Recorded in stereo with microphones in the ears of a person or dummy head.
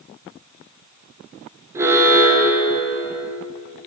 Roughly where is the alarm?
Centre.